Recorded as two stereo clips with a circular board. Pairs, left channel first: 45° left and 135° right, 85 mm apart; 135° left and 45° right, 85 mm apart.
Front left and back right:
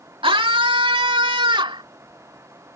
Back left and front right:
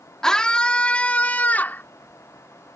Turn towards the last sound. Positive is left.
turn(degrees=-155)